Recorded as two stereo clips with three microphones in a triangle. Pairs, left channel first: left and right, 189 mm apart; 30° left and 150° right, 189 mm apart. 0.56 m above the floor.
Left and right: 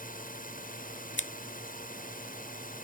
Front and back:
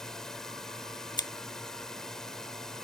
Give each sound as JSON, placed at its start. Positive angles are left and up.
{"t": 0.0, "sound": "a drone", "azimuth_deg": 120}
{"t": 1.2, "sound": "scissors", "azimuth_deg": 95}